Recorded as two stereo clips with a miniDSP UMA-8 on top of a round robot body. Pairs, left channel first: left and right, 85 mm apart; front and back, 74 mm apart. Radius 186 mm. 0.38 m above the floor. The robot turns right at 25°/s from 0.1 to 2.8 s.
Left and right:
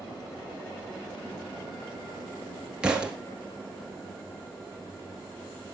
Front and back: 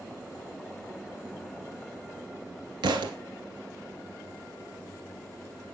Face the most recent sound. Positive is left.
turn(degrees=-170)